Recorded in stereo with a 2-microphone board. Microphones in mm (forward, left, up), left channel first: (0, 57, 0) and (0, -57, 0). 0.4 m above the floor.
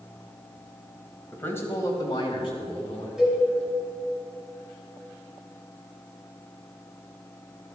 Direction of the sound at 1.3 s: 15° left (ahead or behind).